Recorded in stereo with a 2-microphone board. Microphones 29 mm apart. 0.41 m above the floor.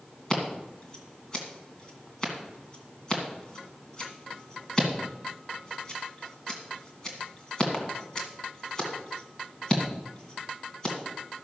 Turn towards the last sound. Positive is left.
turn(degrees=20)  # may be behind; listen again after turning